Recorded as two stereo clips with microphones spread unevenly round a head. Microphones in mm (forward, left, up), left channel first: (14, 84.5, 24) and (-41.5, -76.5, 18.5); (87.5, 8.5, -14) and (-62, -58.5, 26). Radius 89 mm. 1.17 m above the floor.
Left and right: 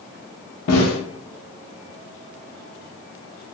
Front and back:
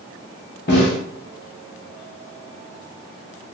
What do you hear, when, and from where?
0.7 s a snare drum: 70° left, 0.8 m